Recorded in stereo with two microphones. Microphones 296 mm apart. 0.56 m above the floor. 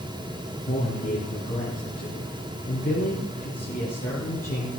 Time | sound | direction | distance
0.7 | a man speaking | 30° left (ahead or behind) | 6 m